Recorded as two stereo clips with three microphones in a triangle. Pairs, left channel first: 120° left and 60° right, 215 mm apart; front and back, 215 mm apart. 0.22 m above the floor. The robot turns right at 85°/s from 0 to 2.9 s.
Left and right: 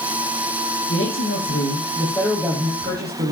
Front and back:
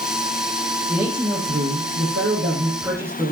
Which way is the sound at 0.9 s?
85° left.